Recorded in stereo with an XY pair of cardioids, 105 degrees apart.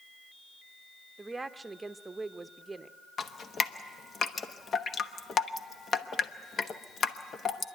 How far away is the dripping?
About 1.0 m.